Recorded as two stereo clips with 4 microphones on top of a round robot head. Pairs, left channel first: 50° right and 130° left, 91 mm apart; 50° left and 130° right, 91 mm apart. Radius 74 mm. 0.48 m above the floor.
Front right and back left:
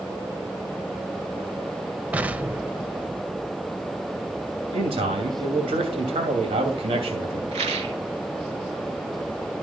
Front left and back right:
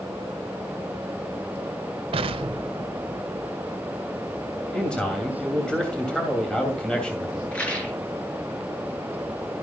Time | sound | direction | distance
2.1 | an explosion | 155° right | 0.7 m
4.7 | a man speaking | 130° left | 2.5 m
7.5 | a rattle | 125° left | 3 m